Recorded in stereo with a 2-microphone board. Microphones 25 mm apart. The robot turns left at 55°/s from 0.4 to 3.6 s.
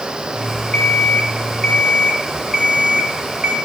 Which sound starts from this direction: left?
An alarm clock, at 0.7 s.